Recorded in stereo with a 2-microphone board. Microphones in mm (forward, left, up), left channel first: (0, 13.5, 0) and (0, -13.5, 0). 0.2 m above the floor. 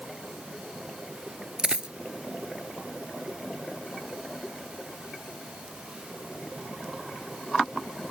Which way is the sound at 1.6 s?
30° right (ahead or behind).